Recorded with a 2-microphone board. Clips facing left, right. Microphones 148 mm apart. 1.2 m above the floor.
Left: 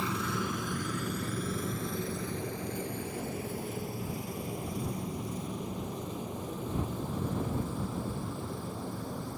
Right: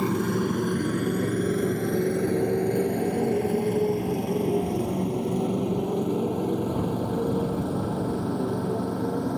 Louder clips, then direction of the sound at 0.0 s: Right 10 dB; 50° right (ahead or behind).